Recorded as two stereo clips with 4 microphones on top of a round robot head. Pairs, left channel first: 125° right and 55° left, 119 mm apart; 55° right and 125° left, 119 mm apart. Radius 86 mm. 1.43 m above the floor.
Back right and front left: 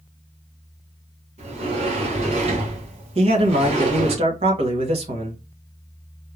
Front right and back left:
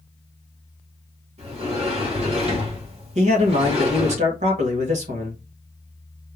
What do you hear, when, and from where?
1.4 s a sliding door: 85° left, 2 m
3.1 s a man speaking: 95° left, 1.3 m